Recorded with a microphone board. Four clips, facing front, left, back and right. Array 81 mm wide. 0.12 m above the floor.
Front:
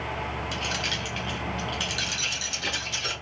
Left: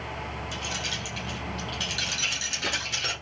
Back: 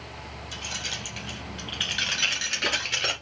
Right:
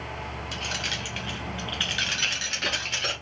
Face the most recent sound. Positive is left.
turn(degrees=-165)